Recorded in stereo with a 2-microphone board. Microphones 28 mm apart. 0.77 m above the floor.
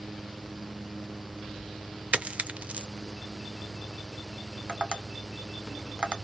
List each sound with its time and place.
2.1 s a dropped coin: 50° right (ahead or behind), 0.6 m
4.7 s tapping: 30° right (ahead or behind), 0.9 m